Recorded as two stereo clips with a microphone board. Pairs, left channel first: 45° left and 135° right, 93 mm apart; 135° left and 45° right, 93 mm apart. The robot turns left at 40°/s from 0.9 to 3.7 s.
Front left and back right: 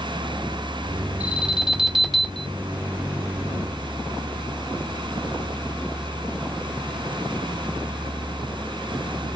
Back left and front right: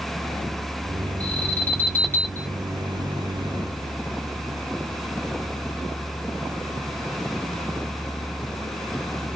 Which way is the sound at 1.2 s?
175° left.